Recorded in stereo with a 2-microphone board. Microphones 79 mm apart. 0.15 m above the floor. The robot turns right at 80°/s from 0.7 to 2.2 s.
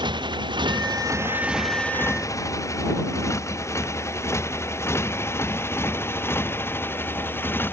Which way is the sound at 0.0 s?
70° right (ahead or behind).